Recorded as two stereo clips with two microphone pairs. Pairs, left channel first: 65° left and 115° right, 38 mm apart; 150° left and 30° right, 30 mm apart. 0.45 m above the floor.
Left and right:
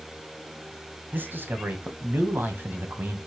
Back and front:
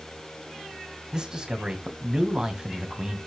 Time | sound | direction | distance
1.1 | a man speaking | 95° right | 2.5 m